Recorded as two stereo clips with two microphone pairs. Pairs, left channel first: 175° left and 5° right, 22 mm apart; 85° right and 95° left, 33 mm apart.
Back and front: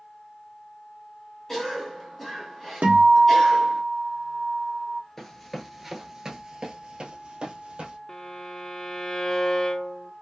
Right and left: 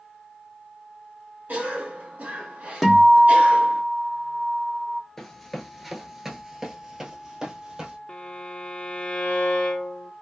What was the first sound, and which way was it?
A cough, 100° left.